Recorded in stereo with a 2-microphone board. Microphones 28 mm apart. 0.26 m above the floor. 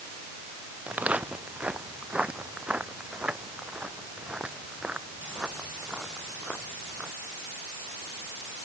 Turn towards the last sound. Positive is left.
turn(degrees=-25)  # may be behind; listen again after turning